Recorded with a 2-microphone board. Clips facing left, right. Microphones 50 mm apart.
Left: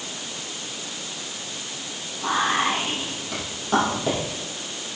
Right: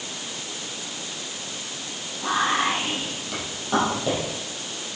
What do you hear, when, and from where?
2.2 s whispering: 5° left (ahead or behind), 4.5 m